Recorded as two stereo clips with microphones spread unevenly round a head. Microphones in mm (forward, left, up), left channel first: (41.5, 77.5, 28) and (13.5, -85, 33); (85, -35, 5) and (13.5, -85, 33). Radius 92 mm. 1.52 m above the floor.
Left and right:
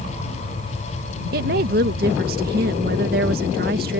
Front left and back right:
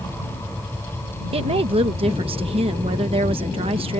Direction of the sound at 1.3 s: 140° right.